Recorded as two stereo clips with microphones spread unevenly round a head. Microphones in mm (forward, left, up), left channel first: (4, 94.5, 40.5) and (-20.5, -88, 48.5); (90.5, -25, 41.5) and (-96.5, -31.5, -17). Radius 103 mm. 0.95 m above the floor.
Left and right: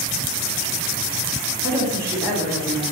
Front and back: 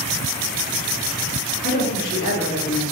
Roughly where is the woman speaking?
Ahead right.